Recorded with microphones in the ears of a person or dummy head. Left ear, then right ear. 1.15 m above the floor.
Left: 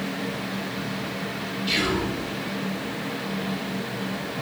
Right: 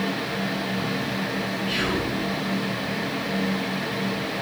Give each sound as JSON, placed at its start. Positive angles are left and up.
{"t": 1.7, "sound": "whispering", "side_deg": 45, "distance_m": 0.9}